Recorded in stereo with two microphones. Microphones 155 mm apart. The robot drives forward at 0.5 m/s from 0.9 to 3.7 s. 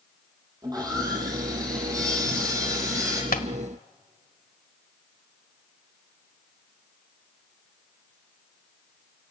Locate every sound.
0.6 s sawing: 25° right (ahead or behind), 8 m; by 3.2 s 20° right (ahead or behind), 9 m
3.3 s tapping: 80° left, 1.5 m